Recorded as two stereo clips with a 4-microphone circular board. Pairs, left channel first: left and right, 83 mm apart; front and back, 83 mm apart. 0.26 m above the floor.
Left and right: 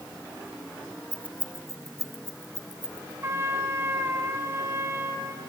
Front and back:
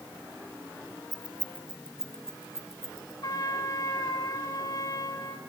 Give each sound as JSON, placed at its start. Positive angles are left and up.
{"t": 1.1, "sound": "keys jangling", "azimuth_deg": -130, "distance_m": 1.0}
{"t": 3.2, "sound": "a trumpet", "azimuth_deg": -40, "distance_m": 1.4}